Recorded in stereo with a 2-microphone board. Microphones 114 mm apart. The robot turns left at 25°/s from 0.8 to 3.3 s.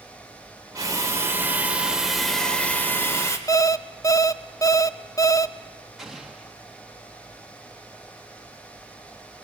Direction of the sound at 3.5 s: 30° left (ahead or behind).